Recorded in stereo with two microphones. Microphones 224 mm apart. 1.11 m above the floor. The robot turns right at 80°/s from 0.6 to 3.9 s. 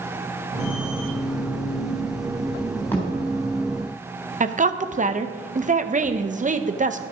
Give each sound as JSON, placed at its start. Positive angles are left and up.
{"t": 2.9, "sound": "a thud", "side_deg": 10, "distance_m": 3.5}
{"t": 4.4, "sound": "a woman speaking", "side_deg": -35, "distance_m": 0.7}